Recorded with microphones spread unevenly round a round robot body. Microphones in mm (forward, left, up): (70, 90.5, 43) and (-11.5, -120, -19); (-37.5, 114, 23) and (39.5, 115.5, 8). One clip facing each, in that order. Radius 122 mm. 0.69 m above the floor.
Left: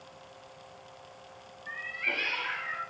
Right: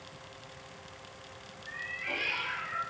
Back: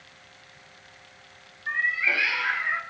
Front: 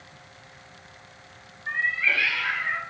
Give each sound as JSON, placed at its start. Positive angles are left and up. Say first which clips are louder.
{"t": 1.7, "sound": "a cat meowing", "louder": "left 2 dB, even", "azimuth_deg": 100, "distance_m": 1.3}